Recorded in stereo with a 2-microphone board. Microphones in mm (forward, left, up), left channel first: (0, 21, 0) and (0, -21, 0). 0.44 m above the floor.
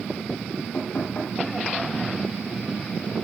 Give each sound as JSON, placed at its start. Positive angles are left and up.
{"t": 0.7, "sound": "knocking", "side_deg": 35, "distance_m": 9.5}